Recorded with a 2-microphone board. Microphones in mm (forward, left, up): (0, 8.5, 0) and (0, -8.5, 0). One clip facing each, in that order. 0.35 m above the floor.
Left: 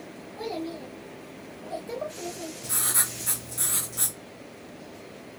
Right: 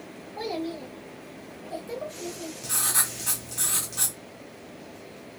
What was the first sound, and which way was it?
A child speaking, 50° right (ahead or behind).